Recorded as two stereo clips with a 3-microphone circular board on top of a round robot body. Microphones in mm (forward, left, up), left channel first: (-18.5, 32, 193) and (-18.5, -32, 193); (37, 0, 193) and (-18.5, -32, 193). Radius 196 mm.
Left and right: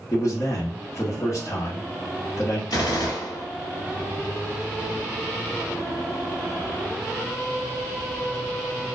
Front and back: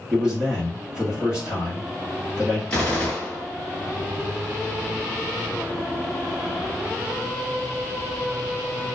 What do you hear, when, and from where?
0.1 s a man speaking: 130° left, 1.1 m
2.7 s a gunshot: 105° left, 1.2 m